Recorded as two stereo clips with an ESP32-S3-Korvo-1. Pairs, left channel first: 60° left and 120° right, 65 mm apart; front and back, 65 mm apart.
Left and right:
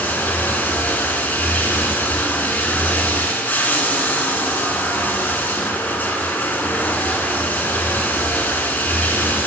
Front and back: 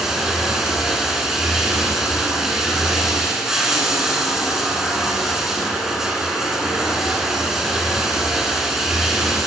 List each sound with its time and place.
0.0 s running water: 100° left, 1.5 m